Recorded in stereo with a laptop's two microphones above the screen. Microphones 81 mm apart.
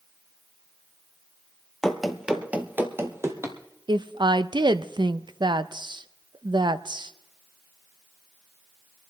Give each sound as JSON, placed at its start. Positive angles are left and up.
{"t": 1.8, "sound": "running footsteps", "side_deg": 5, "distance_m": 1.2}
{"t": 3.9, "sound": "a woman speaking", "side_deg": -70, "distance_m": 0.6}